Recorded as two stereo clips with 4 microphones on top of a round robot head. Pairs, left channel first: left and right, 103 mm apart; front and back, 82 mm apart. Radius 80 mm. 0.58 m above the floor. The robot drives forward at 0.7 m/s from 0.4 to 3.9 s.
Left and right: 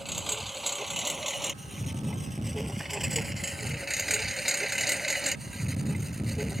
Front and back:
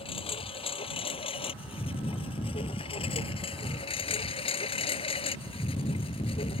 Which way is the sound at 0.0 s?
Straight ahead.